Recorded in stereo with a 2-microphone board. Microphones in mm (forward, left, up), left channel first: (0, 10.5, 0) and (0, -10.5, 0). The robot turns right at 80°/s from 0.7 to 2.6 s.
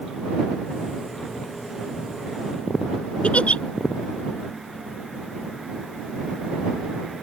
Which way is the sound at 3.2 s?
65° left (ahead or behind).